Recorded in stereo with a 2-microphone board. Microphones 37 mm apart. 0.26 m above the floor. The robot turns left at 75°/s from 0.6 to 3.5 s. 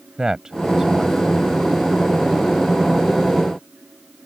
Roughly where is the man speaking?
Centre.